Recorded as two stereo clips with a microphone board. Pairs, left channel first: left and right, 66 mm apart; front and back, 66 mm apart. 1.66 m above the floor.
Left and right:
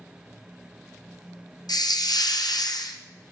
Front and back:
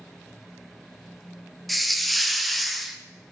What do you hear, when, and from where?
1.7 s a hiss: 90° left, 0.7 m